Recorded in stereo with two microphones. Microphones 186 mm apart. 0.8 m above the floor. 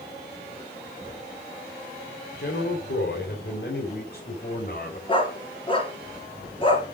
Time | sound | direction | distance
2.4 | a man speaking | 65° left (ahead or behind) | 3 m
5.1 | a dog barking | 30° left (ahead or behind) | 5 m